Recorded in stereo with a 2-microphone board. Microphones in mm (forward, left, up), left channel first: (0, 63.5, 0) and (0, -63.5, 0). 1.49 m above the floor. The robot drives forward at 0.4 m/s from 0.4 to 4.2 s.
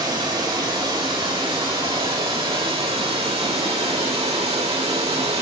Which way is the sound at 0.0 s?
40° right (ahead or behind).